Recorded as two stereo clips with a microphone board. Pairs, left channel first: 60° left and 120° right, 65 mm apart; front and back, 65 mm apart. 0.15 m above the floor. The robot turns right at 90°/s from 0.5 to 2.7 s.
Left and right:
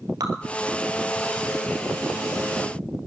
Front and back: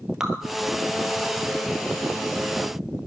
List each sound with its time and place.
0.2 s dripping: 95° right, 1.1 m